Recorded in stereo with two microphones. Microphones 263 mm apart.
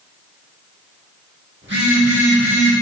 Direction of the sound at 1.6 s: 45° right (ahead or behind).